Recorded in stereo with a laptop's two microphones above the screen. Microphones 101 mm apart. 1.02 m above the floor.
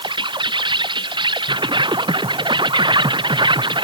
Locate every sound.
0.0 s an insect: 50° right (ahead or behind)